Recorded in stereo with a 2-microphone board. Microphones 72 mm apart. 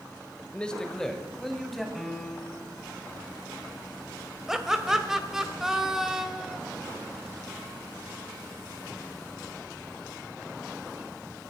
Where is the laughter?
5° right (ahead or behind), 1.8 m.